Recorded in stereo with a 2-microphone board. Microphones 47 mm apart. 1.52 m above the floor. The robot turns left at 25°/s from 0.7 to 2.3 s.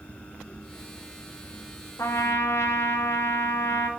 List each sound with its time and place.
2.0 s a trumpet: 70° left (ahead or behind), 0.8 m